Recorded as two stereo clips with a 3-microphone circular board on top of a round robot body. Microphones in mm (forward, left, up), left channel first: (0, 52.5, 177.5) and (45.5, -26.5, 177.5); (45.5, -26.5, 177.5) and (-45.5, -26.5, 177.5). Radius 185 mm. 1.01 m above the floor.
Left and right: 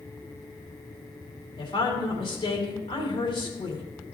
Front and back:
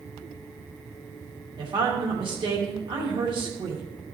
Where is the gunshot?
I don't hear a gunshot.